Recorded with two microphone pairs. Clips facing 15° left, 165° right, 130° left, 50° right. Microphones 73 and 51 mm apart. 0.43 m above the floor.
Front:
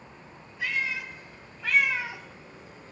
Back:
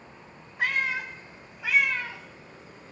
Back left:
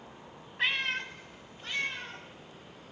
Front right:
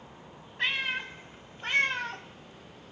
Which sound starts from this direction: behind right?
A cat meowing, at 0.6 s.